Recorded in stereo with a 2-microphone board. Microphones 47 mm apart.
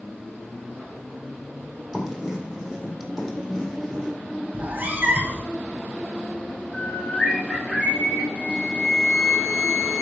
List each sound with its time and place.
1.9 s writing: centre (ahead or behind), 4 m
4.5 s a cat meowing: 35° right (ahead or behind), 1.6 m
6.7 s a bird: 20° left (ahead or behind), 6.5 m
8.3 s a flute: 40° left (ahead or behind), 2.5 m